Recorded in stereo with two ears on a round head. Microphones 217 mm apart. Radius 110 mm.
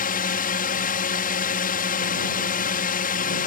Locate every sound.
0.0 s a drone: 35° left (ahead or behind)